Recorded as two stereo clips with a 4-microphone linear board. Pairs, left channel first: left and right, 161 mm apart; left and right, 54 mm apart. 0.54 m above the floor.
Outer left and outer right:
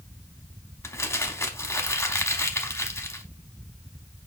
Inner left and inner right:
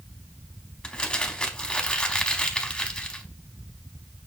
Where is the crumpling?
15° left (ahead or behind), 0.8 m.